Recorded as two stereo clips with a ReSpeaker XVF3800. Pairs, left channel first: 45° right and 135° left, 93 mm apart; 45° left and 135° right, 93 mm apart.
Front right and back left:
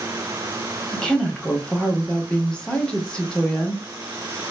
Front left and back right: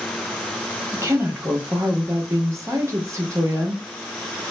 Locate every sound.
0.9 s a woman speaking: 120° right, 0.8 m